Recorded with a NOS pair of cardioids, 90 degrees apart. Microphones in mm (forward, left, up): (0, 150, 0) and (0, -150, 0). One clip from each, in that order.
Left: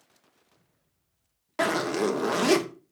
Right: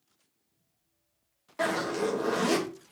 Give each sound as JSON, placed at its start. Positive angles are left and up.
{"t": 1.6, "sound": "a zipper", "azimuth_deg": 45, "distance_m": 1.0}